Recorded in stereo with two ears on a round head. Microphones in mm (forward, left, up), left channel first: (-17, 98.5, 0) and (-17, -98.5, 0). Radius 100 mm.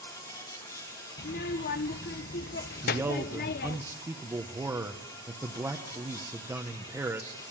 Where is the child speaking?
45° left (ahead or behind), 0.6 m.